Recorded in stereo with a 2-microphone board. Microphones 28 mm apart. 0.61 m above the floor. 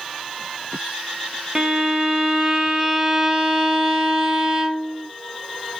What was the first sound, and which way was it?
A violin, 20° right (ahead or behind).